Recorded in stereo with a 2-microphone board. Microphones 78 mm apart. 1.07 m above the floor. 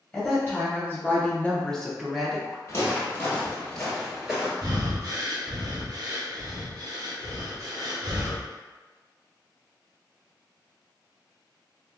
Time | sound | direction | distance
0.1 | a woman speaking | 20° left (ahead or behind) | 1.0 m
2.7 | footsteps | 35° left (ahead or behind) | 1.4 m
4.6 | breathing | 50° right (ahead or behind) | 0.9 m